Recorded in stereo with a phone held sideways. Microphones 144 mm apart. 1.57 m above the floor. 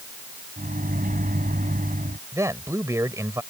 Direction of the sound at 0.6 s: 75° right (ahead or behind).